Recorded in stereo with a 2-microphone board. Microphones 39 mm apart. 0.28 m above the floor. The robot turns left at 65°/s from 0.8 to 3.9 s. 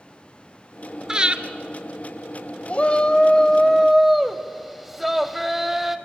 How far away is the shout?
About 1.0 m.